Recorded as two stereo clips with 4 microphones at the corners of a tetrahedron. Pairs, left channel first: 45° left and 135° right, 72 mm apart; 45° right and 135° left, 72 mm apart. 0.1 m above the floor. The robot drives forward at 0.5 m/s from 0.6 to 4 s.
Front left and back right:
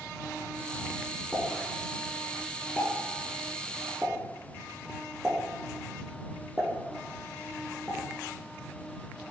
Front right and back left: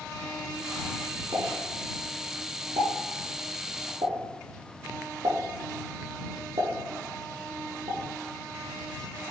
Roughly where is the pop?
Behind left.